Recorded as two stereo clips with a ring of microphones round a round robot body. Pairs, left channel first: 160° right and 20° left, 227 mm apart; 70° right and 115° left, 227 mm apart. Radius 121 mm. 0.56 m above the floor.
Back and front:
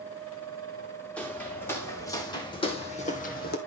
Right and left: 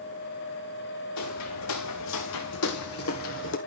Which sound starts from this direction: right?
Footsteps, at 1.2 s.